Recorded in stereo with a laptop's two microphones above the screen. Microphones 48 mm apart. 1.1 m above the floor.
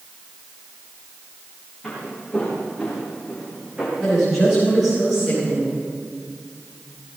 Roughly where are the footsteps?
Centre.